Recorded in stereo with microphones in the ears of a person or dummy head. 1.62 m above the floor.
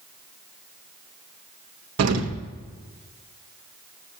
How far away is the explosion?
About 0.9 m.